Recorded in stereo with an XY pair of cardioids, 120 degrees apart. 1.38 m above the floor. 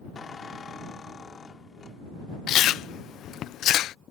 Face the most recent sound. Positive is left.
turn(degrees=65)